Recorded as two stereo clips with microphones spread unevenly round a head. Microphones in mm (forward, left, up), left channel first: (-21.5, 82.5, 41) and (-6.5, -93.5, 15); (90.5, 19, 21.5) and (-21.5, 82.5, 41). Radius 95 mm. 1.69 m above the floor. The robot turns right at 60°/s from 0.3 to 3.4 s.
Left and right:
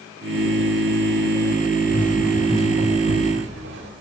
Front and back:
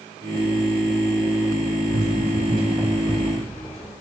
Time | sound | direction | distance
1.9 | running footsteps | 170° left | 8 m